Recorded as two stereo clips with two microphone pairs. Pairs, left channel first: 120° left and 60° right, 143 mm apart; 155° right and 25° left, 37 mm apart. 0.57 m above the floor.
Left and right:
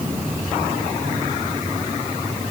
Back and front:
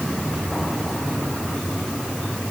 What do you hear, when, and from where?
Only background noise.